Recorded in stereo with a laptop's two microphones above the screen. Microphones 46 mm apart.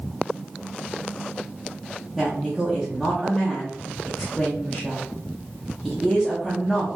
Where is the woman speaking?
5° left (ahead or behind), 1.1 m.